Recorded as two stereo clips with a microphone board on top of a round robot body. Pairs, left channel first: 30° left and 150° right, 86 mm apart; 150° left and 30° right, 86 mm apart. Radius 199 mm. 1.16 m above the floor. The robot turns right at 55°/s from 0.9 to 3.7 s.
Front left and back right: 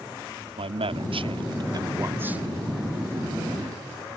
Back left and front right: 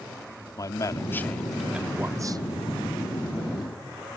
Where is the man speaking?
155° right; by 2.5 s 70° right.